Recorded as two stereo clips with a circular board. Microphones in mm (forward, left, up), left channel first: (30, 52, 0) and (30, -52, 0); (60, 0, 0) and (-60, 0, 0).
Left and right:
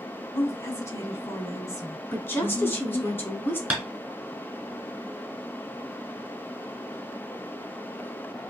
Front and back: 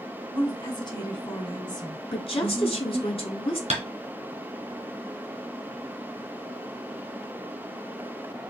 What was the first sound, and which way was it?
A woman speaking, 40° left.